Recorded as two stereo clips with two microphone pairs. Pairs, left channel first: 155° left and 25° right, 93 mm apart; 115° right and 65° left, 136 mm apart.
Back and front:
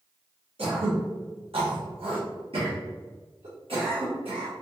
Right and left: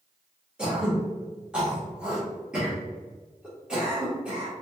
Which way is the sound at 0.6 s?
15° right.